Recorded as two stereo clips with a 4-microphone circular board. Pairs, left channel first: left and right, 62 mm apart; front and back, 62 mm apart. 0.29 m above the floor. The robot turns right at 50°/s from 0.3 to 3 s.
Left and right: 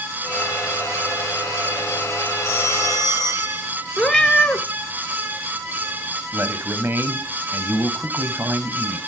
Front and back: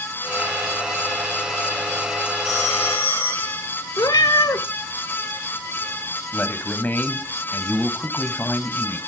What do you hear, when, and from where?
2.4 s a phone ringing: 70° right, 7.5 m; by 3.6 s 40° right, 7.5 m
4.0 s a cat meowing: 5° left, 1.4 m
6.3 s a man speaking: 50° right, 1.6 m